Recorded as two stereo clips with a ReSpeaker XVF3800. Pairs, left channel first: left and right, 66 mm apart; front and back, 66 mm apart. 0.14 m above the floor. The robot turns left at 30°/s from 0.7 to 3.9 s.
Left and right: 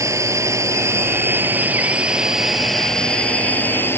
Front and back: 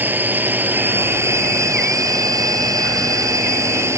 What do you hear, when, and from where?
0.0 s a drone: 120° right; by 4.0 s 140° left